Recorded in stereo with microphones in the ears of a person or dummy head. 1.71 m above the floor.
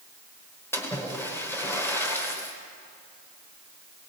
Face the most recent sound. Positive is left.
turn(degrees=15)  # may be behind; listen again after turning